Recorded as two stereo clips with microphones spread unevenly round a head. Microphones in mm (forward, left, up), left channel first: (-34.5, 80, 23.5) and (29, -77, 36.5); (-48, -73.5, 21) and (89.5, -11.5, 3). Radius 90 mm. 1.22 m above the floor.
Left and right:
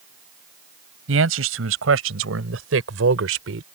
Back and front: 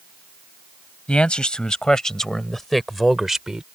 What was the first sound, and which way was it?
A man speaking, 75° right.